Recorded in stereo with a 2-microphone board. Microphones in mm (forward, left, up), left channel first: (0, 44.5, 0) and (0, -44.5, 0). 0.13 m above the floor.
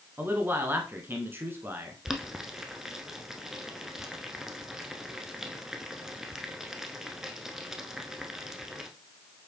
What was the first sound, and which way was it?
A man speaking, 25° right (ahead or behind).